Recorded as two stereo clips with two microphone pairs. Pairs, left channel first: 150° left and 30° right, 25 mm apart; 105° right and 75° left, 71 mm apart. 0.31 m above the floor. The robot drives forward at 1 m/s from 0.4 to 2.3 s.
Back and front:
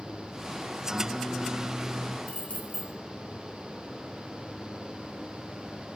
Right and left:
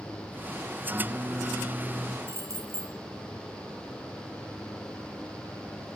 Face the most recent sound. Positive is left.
turn(degrees=125)